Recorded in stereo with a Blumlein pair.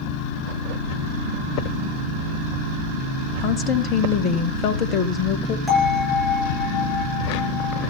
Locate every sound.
3.4 s a woman speaking: 30° left, 1.9 m
5.7 s a bell: straight ahead, 9.5 m